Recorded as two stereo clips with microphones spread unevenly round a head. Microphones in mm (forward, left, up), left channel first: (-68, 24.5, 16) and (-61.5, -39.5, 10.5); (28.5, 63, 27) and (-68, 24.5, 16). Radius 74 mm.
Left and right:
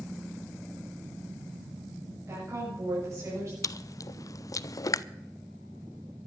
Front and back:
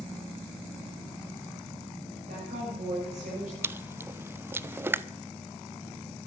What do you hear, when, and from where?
2.3 s a woman speaking: 130° right, 8.5 m
3.6 s chewing: 130° left, 0.5 m